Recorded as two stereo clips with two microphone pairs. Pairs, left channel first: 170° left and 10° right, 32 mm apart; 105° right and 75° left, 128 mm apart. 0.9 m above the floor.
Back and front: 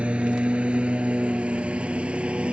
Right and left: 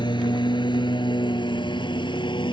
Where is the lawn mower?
60° right.